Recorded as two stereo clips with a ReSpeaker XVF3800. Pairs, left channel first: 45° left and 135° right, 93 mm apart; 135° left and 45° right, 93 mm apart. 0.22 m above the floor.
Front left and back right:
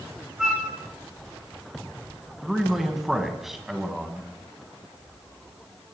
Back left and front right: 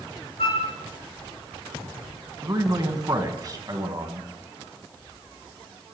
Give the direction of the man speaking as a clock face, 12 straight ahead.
2 o'clock.